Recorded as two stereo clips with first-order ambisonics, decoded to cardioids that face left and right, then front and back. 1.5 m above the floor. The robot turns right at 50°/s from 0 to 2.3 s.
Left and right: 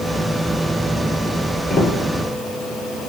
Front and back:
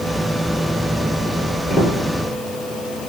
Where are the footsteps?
30° left, 1.7 m; by 1.9 s 35° left, 1.7 m.